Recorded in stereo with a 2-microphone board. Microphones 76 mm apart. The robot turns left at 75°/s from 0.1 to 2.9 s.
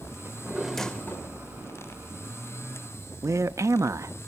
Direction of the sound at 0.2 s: 145° right.